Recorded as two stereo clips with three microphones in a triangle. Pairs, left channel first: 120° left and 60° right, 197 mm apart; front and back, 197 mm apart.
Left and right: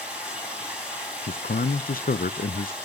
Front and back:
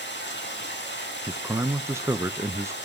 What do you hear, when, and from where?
0.0 s running water: 25° left, 5.5 m
1.3 s a man speaking: 110° left, 0.6 m